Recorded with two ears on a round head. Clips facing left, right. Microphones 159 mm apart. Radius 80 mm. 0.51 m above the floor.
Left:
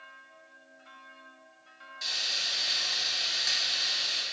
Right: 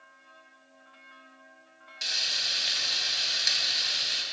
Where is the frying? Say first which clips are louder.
Right 1 dB; 30° right (ahead or behind), 0.6 m.